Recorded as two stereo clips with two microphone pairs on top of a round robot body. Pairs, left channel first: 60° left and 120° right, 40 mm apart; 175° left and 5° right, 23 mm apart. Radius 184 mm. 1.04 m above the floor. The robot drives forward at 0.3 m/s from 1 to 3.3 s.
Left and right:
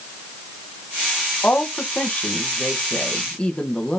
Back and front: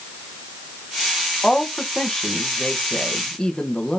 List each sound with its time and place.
1.4 s a woman speaking: 110° left, 1.4 m; by 4.0 s 130° left, 1.7 m